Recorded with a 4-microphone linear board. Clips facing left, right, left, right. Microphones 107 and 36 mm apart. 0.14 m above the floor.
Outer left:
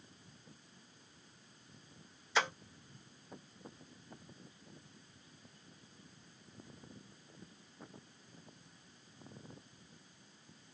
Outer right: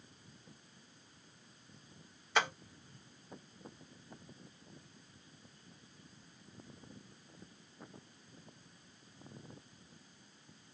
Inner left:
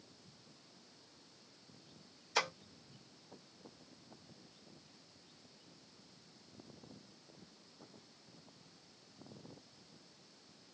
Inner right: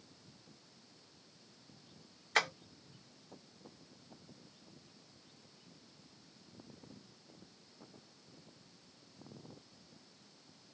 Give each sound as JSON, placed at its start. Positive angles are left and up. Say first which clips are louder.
{"t": 2.4, "sound": "tapping", "louder": "outer right 1 dB, inner right 4 dB", "side_deg": -55, "distance_m": 1.9}